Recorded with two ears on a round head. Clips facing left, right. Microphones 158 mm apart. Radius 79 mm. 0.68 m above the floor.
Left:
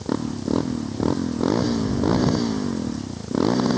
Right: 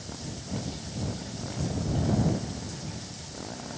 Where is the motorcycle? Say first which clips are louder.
Left 15 dB; 85° left.